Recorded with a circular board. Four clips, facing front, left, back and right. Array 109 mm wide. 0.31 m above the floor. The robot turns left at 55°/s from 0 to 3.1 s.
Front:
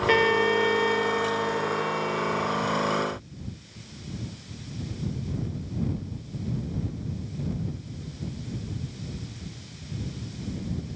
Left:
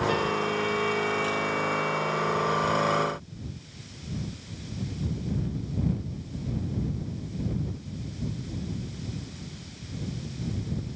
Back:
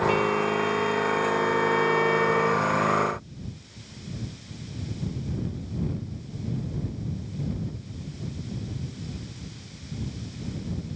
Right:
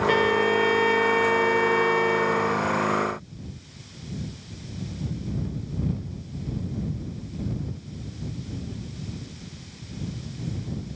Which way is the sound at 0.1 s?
25° right.